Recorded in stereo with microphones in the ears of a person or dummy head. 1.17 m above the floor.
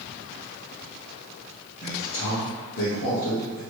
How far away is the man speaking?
About 1.5 m.